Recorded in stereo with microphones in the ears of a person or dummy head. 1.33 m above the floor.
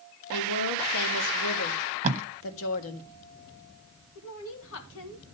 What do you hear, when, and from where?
0.3 s a woman speaking: 80° left, 1.7 m
2.0 s tape being pulled: 35° right (ahead or behind), 1.0 m
4.2 s a woman speaking: 70° left (ahead or behind), 2.5 m